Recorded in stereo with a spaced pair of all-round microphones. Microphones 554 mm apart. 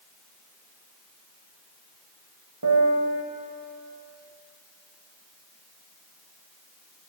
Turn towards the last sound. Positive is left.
turn(degrees=-40)  # may be behind; listen again after turning